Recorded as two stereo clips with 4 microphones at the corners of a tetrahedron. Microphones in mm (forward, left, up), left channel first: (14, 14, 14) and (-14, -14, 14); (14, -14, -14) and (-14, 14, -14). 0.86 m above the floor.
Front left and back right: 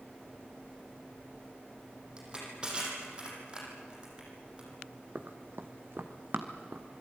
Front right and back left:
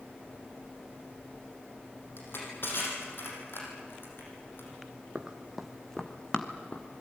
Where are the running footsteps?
160° right, 1.7 m; by 6.9 s 95° right, 2.5 m.